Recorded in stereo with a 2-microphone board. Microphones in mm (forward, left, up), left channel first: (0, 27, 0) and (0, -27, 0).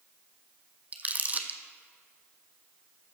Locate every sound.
0.9 s crumpling: 30° right (ahead or behind), 0.9 m